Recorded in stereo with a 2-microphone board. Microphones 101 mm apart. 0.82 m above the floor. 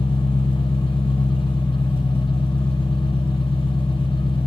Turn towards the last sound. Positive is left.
turn(degrees=25)  # may be behind; listen again after turning